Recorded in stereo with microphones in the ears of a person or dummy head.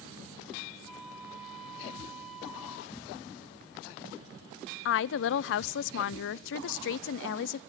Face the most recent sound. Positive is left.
turn(degrees=65)  # may be behind; listen again after turning